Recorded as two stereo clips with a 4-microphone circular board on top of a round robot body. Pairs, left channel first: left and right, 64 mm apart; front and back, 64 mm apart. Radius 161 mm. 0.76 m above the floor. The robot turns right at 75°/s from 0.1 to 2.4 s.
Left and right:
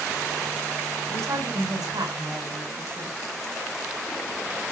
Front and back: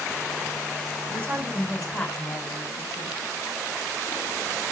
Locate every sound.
1.1 s a woman speaking: 140° right, 4.5 m; by 3.2 s 40° right, 4.5 m